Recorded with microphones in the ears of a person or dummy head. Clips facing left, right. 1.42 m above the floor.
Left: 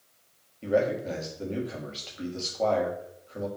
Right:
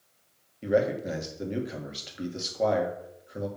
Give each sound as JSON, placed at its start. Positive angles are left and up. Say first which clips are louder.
{"t": 0.6, "sound": "a man speaking", "louder": "even", "side_deg": -20, "distance_m": 1.5}